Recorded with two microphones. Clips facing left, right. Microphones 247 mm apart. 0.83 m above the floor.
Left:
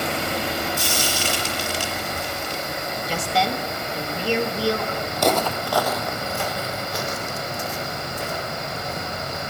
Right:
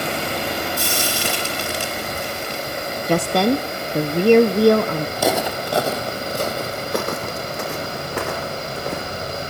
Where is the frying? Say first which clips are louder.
Right 2 dB; 65° right (ahead or behind), 4.5 m.